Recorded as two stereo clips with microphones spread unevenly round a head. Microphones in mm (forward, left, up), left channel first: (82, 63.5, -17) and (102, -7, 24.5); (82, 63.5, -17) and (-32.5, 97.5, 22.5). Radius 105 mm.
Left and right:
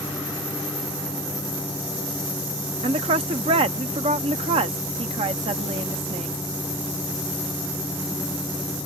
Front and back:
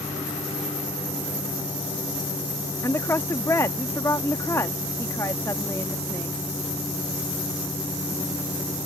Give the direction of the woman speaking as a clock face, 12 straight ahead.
3 o'clock.